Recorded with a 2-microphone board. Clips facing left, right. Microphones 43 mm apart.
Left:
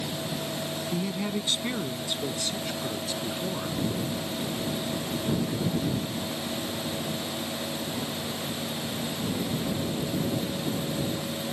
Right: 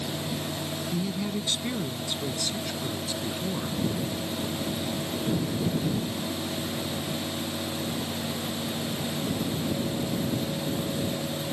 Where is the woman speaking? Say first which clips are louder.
Even; 25° left (ahead or behind); by 3.8 s 5° left (ahead or behind).